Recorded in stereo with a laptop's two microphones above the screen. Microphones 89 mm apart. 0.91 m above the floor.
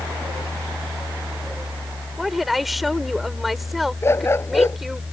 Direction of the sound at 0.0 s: 10° right (ahead or behind).